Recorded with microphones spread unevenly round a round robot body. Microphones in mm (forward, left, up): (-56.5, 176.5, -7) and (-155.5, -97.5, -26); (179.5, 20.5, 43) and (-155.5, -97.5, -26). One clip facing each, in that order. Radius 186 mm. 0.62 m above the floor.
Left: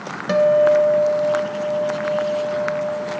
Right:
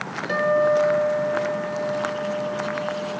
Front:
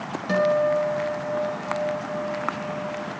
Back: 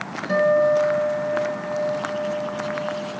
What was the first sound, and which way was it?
A guitar, 95° left.